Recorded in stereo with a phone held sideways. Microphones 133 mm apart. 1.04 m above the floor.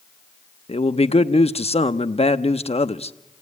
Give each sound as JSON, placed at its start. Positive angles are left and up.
{"t": 0.7, "sound": "a man speaking", "side_deg": 50, "distance_m": 0.8}